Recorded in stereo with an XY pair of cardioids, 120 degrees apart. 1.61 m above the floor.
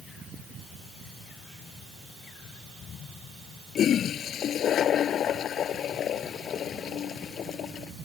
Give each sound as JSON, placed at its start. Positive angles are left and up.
{"t": 3.8, "sound": "a toilet flushing", "azimuth_deg": 50}